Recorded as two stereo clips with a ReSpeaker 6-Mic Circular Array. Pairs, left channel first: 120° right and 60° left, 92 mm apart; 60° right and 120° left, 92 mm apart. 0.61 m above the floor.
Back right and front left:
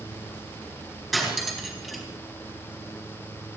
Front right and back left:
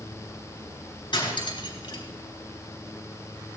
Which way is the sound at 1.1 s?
30° right.